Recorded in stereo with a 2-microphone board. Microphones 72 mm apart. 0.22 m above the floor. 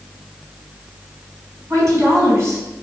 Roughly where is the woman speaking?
Right.